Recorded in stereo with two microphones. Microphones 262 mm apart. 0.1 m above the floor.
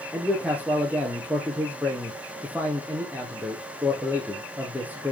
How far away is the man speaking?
About 4 m.